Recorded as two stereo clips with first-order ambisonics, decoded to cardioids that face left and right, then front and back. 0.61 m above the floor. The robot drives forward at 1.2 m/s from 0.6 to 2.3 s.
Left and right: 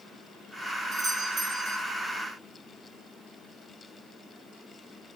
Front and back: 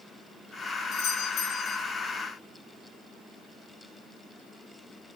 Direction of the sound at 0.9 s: 35° right.